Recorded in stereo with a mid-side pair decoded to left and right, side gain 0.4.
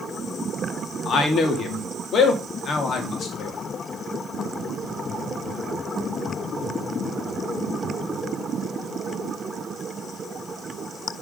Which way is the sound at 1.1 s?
60° left.